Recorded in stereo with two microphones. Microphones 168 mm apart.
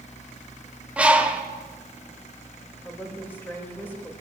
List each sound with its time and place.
1.0 s a bird: 5° right (ahead or behind), 1.0 m
2.9 s a woman speaking: 10° left (ahead or behind), 2.5 m